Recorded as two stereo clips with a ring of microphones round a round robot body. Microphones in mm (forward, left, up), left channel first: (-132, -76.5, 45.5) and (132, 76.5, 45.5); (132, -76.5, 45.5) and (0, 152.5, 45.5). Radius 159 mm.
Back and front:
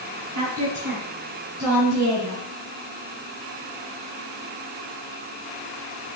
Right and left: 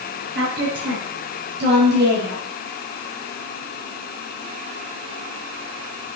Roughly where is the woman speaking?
Left.